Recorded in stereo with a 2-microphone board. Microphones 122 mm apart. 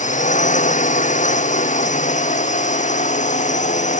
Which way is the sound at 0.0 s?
80° left.